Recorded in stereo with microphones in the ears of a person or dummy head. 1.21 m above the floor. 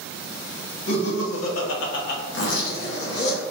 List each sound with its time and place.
0.9 s laughter: 80° left, 1.0 m; by 2.2 s 55° left (ahead or behind), 0.6 m
2.3 s a zipper: 70° left (ahead or behind), 1.1 m